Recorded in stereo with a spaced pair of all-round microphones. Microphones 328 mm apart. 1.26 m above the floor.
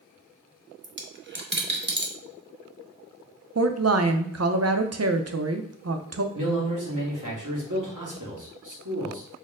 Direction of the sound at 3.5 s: 50° right (ahead or behind).